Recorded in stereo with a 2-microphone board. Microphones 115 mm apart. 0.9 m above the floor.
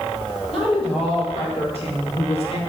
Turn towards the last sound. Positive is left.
turn(degrees=55)  # may be behind; listen again after turning